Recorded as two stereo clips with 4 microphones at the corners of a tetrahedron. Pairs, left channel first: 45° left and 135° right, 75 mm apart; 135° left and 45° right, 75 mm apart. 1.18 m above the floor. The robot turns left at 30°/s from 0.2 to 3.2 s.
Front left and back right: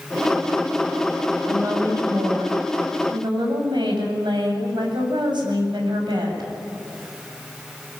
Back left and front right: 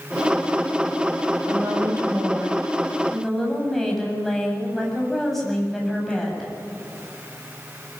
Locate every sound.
1.5 s a woman speaking: 85° right, 7.5 m; by 6.5 s 140° right, 7.5 m